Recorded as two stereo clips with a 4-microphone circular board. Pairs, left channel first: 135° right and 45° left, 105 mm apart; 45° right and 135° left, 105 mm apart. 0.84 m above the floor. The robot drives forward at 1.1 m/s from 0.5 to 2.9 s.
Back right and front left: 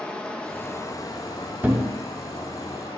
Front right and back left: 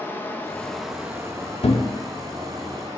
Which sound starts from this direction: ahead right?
A thud, at 1.6 s.